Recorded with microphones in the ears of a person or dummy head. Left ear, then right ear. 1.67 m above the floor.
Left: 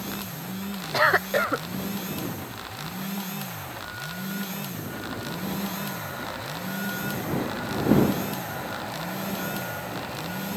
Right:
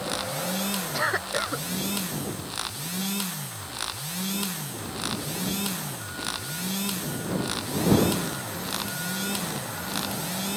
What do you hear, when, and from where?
0.9 s a cough: 25° left (ahead or behind)